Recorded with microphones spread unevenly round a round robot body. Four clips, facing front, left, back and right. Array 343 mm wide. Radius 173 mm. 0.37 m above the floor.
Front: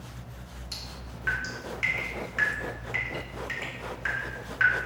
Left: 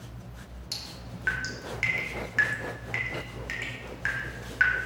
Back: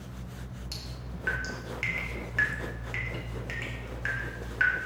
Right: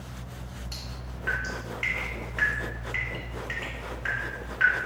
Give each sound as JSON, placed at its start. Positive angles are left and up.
{"t": 0.7, "sound": "dripping", "azimuth_deg": 135, "distance_m": 1.9}